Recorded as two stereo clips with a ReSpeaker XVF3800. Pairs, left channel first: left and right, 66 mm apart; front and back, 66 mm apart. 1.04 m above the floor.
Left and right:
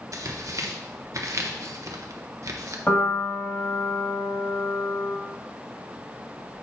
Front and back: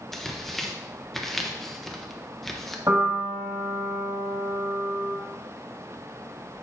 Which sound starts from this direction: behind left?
A piano, at 2.9 s.